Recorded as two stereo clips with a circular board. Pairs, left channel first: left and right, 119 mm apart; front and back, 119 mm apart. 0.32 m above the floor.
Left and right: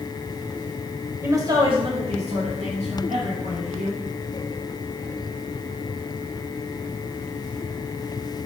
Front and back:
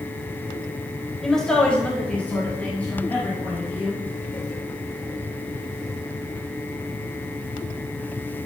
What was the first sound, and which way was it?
A woman speaking, 85° right.